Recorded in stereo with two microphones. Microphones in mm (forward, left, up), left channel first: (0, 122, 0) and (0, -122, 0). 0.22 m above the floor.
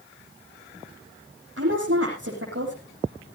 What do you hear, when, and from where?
1.6 s a woman speaking: 60° right (ahead or behind), 8.5 m